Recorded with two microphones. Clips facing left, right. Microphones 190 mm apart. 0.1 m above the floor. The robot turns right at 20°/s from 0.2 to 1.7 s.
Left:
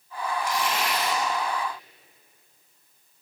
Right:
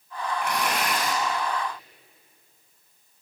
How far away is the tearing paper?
About 6 m.